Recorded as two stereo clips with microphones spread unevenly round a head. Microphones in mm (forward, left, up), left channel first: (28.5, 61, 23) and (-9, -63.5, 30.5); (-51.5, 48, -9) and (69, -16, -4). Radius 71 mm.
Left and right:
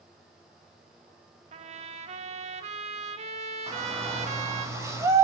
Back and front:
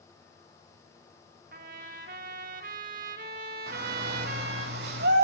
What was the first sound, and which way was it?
A trumpet, 65° right.